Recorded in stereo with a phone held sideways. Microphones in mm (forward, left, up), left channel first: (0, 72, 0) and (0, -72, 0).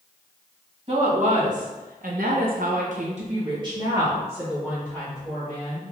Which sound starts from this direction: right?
A woman speaking, at 0.9 s.